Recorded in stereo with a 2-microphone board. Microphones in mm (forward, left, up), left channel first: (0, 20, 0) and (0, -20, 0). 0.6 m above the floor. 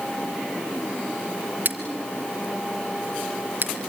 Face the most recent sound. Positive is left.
turn(degrees=-55)  # may be behind; listen again after turning